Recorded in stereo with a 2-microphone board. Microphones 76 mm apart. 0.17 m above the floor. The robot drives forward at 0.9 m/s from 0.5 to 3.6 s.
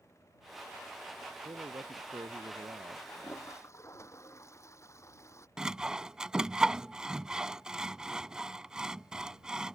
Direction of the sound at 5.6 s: 10° right (ahead or behind).